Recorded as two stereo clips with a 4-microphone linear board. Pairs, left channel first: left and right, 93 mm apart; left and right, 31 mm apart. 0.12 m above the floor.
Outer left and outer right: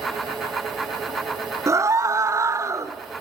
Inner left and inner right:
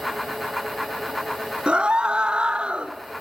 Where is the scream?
35° right (ahead or behind), 1.4 m.